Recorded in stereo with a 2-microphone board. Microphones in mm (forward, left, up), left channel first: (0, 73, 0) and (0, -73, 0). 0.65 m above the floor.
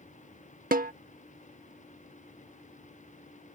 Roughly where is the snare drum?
Right.